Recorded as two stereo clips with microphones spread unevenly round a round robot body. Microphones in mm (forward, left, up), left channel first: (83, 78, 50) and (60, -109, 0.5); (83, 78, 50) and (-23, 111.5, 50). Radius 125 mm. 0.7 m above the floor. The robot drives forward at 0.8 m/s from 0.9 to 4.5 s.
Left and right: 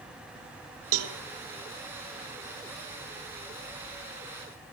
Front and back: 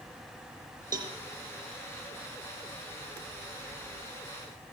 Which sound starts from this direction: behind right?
A cowbell, at 0.9 s.